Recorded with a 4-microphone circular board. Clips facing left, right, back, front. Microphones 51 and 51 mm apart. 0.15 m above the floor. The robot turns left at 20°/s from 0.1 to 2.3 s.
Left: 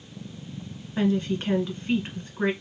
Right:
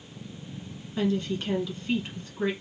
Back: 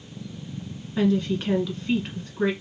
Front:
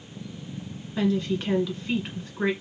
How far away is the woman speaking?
About 1.4 m.